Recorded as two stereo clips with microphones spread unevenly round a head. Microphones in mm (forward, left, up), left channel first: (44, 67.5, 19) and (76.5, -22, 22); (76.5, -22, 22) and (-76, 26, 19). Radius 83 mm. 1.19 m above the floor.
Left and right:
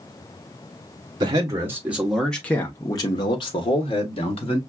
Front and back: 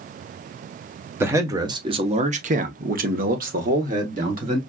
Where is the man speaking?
125° right, 1.1 m; by 4.6 s 120° left, 1.6 m.